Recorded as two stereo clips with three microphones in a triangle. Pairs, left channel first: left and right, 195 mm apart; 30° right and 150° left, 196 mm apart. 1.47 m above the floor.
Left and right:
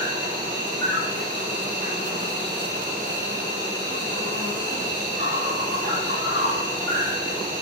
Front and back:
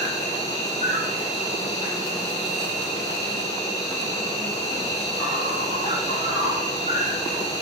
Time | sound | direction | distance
0.0 | an insect | 85° right | 5.5 m